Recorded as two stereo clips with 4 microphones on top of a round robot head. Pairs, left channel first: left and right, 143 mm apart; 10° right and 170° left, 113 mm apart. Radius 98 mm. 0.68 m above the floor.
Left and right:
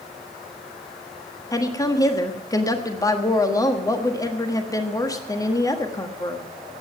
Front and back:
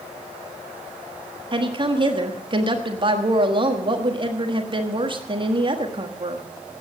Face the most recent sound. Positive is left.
turn(degrees=150)